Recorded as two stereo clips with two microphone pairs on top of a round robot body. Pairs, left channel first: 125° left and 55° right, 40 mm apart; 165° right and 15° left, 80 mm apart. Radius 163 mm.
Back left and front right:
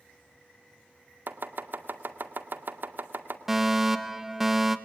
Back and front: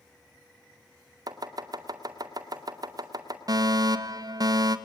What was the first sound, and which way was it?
Chopping, 30° right.